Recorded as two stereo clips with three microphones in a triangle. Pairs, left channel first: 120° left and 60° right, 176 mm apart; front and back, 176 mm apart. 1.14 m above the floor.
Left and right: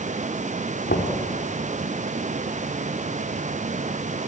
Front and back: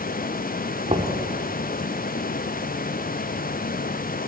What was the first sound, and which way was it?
Knocking, 130° left.